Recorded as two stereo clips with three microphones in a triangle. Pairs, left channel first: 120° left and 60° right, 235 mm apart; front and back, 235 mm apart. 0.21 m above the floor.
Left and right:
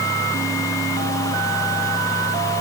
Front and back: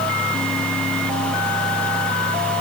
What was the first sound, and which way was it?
Only background noise.